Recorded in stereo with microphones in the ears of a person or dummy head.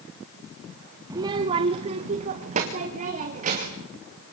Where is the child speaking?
20° right (ahead or behind), 0.9 m; by 3.9 s 50° right (ahead or behind), 3 m.